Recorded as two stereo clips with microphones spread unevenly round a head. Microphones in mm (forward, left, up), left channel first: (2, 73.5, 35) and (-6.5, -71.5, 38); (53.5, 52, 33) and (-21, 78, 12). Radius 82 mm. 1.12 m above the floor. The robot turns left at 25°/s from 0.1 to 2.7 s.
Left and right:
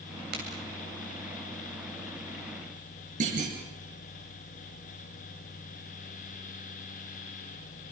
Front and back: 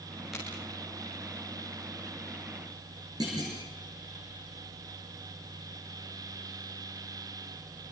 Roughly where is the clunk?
Behind right.